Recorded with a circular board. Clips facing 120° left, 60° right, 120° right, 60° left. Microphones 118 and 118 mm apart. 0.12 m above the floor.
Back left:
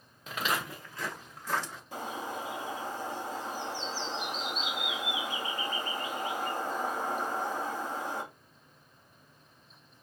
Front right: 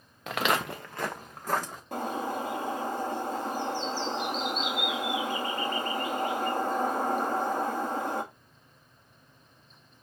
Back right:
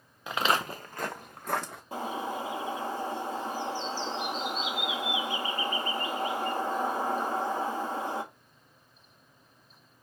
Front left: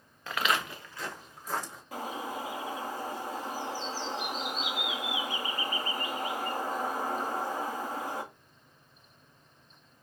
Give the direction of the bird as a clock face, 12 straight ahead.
2 o'clock.